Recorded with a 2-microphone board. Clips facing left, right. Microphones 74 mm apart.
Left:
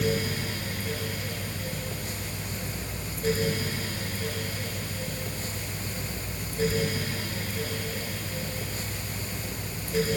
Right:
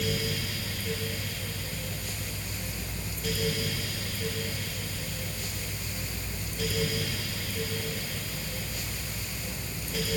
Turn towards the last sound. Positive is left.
No sound to turn to.